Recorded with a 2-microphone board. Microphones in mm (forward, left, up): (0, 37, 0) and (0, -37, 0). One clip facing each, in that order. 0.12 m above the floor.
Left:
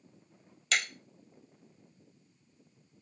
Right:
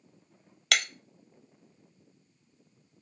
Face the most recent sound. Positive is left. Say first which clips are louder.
# right 2 dB
turn(degrees=-75)  # may be behind; listen again after turning